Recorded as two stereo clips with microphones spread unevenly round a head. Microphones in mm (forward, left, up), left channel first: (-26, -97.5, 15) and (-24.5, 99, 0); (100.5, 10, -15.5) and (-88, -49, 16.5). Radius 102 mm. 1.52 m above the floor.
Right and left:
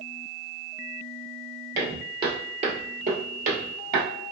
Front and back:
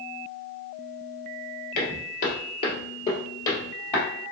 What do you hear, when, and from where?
1.8 s footsteps: 20° left, 1.7 m; by 4.0 s 105° left, 2 m